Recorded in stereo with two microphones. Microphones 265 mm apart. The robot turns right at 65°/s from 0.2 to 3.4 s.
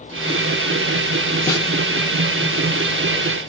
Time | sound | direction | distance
1.5 | a snare drum | 10° left (ahead or behind) | 0.6 m